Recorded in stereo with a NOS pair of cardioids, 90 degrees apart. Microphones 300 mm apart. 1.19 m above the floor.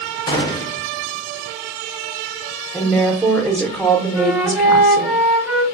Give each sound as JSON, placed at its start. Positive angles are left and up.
{"t": 0.3, "sound": "a gunshot", "azimuth_deg": 15, "distance_m": 0.8}
{"t": 2.7, "sound": "a woman speaking", "azimuth_deg": 0, "distance_m": 0.8}
{"t": 4.1, "sound": "a flute", "azimuth_deg": -5, "distance_m": 1.2}